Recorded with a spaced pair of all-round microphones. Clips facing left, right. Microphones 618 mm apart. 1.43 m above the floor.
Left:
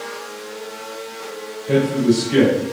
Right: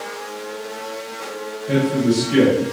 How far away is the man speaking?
About 1.2 m.